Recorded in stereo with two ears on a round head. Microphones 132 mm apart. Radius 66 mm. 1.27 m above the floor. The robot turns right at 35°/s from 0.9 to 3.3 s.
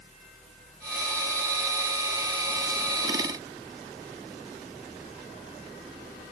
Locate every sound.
Only background noise.